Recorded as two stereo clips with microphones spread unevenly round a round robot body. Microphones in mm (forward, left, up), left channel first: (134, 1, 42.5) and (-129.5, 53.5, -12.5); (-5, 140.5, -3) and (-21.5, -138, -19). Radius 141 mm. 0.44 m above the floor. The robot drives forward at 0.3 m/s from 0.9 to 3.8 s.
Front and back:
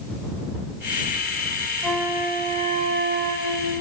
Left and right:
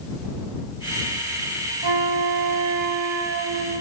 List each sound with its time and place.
1.8 s a flute: 100° right, 0.6 m; by 3.8 s 140° right, 0.9 m